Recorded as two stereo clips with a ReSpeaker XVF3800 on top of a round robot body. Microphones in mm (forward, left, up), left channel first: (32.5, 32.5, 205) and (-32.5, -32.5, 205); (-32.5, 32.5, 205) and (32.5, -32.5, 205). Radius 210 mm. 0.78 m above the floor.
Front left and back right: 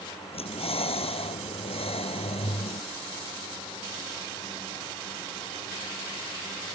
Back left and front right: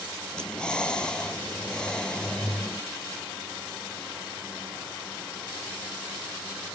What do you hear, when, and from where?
0.3 s breathing: 55° left